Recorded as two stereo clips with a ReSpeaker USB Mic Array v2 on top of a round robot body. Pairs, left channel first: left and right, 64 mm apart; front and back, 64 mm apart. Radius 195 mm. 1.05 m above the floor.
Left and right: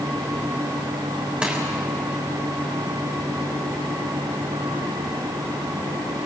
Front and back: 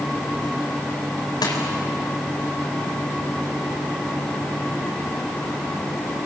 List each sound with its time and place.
1.4 s crushing: 15° right, 4 m